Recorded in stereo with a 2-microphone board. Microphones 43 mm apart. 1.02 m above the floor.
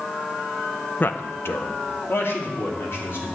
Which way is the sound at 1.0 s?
45° left (ahead or behind).